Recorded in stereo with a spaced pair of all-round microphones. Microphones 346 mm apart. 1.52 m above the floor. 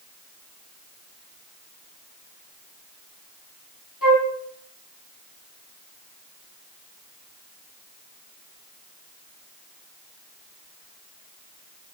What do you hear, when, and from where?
4.0 s a flute: 70° left (ahead or behind), 3.5 m